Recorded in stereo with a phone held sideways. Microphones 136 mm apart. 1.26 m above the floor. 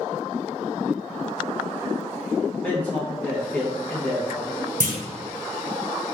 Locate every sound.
2.6 s a man speaking: 10° left (ahead or behind), 0.9 m
4.8 s a clunk: 75° right (ahead or behind), 0.6 m